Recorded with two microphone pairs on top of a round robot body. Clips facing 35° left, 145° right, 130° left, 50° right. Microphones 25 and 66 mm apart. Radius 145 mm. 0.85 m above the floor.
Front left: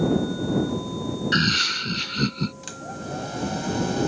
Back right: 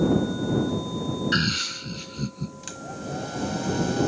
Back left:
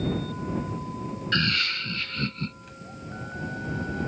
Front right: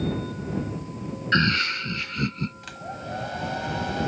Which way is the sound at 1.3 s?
20° right.